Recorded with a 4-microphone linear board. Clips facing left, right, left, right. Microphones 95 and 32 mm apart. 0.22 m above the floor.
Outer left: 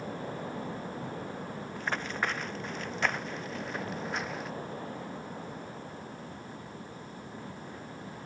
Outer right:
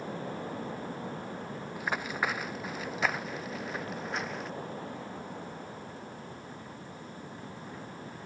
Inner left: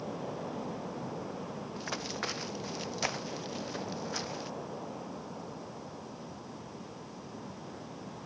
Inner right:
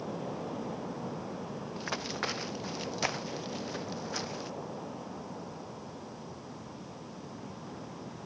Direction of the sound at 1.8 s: 10° right (ahead or behind).